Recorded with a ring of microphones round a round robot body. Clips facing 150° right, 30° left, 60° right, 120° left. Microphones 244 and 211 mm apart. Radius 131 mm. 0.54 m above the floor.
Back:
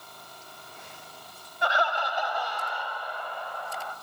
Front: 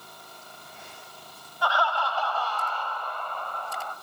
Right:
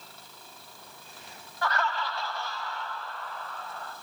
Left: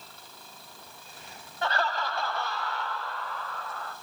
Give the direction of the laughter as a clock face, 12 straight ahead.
7 o'clock.